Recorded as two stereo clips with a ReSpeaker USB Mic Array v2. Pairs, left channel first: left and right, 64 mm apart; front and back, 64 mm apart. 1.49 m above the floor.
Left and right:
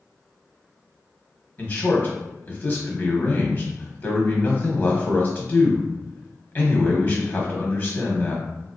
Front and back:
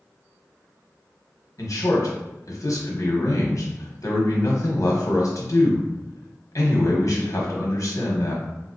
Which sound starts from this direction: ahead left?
A man speaking, at 1.6 s.